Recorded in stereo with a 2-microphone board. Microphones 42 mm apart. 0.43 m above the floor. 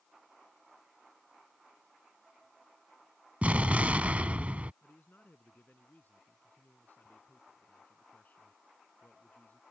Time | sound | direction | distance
3.4 | an explosion | 35° right (ahead or behind) | ?
4.8 | a man speaking | 45° left (ahead or behind) | ?